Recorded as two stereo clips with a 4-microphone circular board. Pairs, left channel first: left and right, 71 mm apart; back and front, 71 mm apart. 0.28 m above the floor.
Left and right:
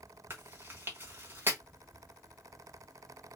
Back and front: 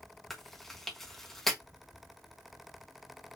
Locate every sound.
0.3 s chewing: 100° right, 1.7 m